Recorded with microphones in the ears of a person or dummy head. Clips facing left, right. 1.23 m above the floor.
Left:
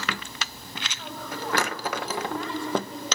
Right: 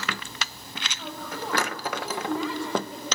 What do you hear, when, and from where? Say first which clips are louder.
1.0 s a woman speaking: even; 10° right (ahead or behind), 7.5 m